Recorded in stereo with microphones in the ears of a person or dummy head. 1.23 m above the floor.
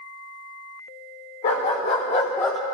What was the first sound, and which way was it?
A dog barking, 40° left (ahead or behind).